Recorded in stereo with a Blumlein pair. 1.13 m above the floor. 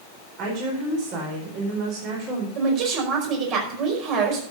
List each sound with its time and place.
0.4 s a woman speaking: 35° right, 4.5 m
2.5 s a woman speaking: 35° right, 5 m